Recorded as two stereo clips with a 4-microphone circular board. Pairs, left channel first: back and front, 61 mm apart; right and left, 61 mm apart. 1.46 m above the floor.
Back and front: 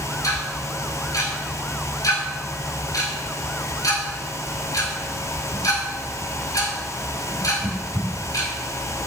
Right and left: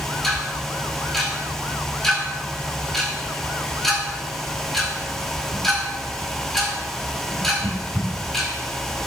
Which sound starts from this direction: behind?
Ticking, at 0.2 s.